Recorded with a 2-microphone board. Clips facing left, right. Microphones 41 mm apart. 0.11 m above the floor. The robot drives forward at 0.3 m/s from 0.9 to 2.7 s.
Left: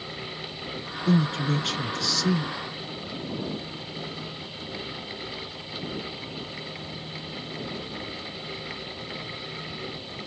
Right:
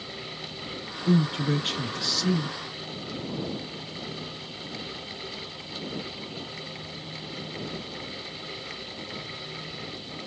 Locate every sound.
1.1 s a man speaking: 20° right (ahead or behind), 1.2 m